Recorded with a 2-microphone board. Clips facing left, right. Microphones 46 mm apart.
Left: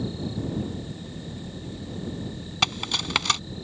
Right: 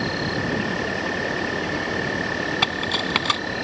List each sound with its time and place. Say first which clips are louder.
0.0 s an insect: right 7 dB; 85° right
2.6 s cutlery clinking: right 5 dB; 10° right (ahead or behind)